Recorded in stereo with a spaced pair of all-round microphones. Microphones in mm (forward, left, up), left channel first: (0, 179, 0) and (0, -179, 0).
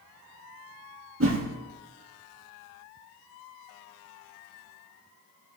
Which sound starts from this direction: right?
A whoosh, at 1.2 s.